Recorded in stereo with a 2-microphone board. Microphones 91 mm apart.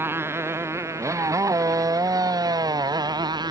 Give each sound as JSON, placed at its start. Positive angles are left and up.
{"t": 0.0, "sound": "a motorcycle", "side_deg": -25}